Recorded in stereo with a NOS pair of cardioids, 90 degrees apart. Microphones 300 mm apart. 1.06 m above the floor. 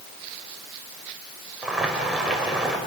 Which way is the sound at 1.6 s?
5° right.